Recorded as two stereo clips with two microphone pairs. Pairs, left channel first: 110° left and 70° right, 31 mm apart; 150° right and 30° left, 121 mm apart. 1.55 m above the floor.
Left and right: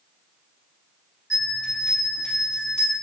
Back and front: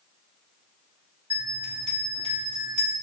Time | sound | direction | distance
1.3 | a bell | 40° left | 1.8 m